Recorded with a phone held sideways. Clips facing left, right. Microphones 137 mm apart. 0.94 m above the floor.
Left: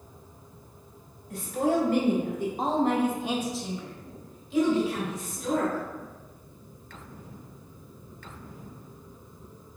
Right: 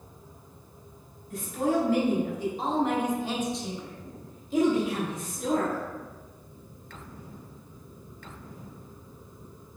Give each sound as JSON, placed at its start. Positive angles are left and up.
{"t": 1.3, "sound": "a woman speaking", "side_deg": 65, "distance_m": 1.9}